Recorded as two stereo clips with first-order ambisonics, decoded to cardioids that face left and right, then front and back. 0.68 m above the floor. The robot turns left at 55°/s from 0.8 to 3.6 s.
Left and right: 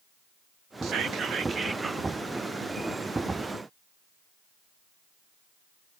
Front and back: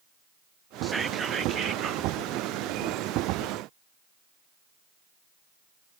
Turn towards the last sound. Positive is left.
turn(degrees=105)